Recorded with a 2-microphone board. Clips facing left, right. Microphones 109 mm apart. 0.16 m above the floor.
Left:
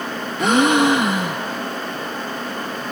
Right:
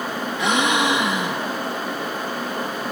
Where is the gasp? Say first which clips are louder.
Left 6 dB; 50° left (ahead or behind), 0.8 m.